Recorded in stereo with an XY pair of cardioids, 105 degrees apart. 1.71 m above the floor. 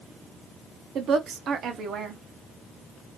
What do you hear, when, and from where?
0.9 s a woman speaking: 60° right, 0.9 m